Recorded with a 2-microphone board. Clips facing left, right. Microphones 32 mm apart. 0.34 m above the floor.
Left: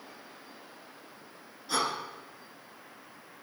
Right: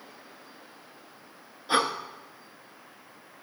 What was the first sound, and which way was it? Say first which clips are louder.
Breathing: right 5 dB; 30° right (ahead or behind).